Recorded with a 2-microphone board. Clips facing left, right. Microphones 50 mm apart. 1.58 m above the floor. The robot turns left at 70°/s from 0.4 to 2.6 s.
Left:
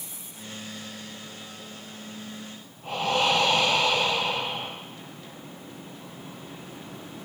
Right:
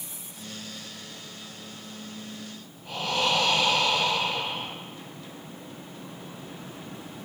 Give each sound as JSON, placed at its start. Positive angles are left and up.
{"t": 2.8, "sound": "breathing", "side_deg": 50, "distance_m": 5.5}